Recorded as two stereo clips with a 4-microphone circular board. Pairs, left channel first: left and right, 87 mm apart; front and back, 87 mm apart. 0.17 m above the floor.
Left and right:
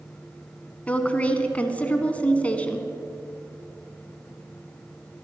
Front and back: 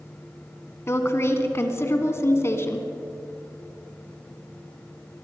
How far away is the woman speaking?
About 1.3 m.